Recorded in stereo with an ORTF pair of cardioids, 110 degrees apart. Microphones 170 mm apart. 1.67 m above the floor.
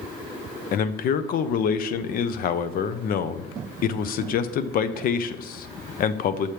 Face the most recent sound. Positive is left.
turn(degrees=55)